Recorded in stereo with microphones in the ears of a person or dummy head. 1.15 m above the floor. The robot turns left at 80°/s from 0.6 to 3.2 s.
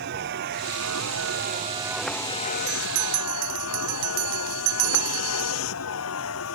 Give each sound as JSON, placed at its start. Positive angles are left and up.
{"t": 0.0, "sound": "a vehicle", "azimuth_deg": -60}
{"t": 2.7, "sound": "a bell", "azimuth_deg": -45}